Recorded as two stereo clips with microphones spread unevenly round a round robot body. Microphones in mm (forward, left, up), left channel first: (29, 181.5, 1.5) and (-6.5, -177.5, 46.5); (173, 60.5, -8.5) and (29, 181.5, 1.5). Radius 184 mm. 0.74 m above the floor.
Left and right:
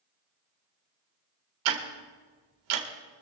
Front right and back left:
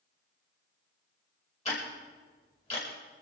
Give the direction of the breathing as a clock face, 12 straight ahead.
I don't hear breathing.